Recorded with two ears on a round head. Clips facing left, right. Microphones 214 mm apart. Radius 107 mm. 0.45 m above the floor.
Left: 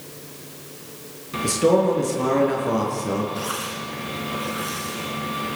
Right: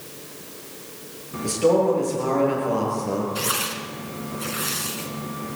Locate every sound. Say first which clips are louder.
1.4 s a man speaking: left 1 dB; 25° left (ahead or behind), 6.5 m
3.4 s tearing paper: even; 35° right (ahead or behind), 3 m